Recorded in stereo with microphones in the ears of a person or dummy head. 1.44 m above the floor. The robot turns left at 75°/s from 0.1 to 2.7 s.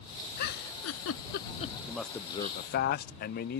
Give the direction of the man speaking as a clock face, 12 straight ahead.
6 o'clock.